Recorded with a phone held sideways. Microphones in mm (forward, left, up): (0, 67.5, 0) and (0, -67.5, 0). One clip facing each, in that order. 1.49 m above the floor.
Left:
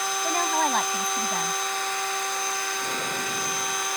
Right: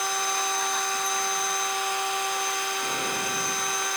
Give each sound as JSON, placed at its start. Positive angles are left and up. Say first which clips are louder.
{"t": 0.2, "sound": "a woman speaking", "louder": "left 4 dB", "side_deg": 60}